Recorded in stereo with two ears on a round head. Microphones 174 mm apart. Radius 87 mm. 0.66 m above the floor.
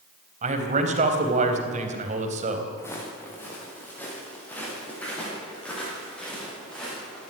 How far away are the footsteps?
About 5.5 m.